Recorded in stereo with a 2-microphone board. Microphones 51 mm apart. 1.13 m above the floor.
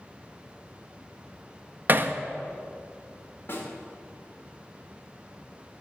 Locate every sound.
1.9 s hammering: 40° right (ahead or behind), 0.5 m
3.5 s a snare drum: 45° left (ahead or behind), 2.5 m